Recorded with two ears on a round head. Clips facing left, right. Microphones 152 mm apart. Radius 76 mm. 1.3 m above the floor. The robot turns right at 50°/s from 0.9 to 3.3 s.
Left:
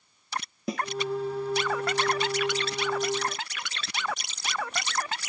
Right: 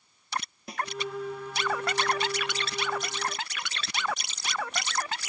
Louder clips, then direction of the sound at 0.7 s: Left 4 dB; 65° left (ahead or behind).